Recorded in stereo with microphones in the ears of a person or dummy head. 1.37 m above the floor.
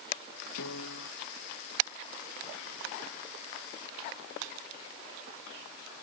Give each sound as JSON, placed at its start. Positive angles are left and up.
{"t": 0.6, "sound": "a piano", "side_deg": 80}